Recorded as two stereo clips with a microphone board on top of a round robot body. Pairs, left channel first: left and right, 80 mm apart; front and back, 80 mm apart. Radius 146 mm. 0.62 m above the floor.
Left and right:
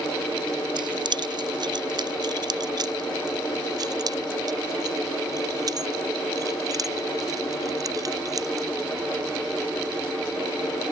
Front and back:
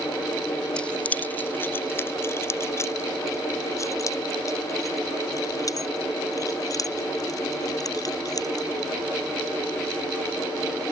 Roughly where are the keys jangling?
Right.